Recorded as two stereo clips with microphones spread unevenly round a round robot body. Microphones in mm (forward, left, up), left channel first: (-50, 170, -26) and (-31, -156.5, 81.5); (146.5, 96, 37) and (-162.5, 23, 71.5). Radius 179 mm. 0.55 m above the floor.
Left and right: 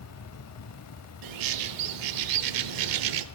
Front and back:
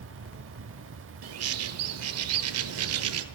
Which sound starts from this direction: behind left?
An insect, at 0.0 s.